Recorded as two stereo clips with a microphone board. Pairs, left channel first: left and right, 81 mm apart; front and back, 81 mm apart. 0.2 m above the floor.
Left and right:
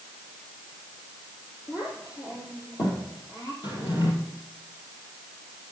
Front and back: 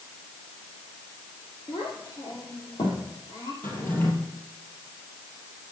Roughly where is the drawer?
Ahead left.